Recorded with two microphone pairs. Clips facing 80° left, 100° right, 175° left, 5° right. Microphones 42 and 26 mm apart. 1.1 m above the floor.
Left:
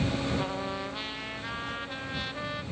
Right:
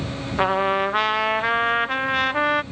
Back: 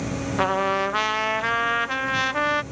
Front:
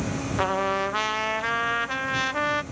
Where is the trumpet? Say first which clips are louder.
Right 13 dB, back 3 dB; 110° right.